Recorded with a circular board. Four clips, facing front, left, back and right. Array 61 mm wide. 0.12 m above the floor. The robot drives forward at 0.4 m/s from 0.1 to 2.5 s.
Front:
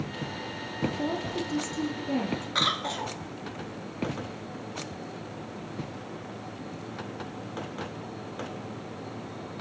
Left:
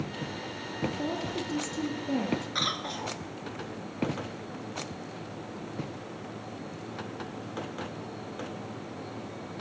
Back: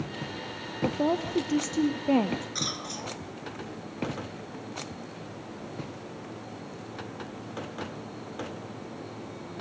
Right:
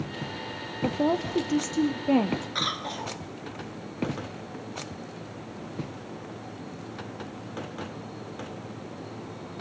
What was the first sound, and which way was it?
A woman speaking, 125° right.